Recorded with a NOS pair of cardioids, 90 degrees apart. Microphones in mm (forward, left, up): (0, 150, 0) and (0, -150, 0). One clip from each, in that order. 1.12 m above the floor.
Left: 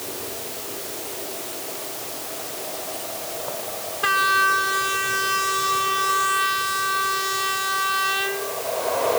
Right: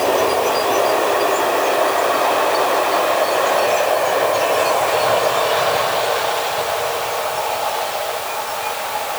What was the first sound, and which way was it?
Only background noise.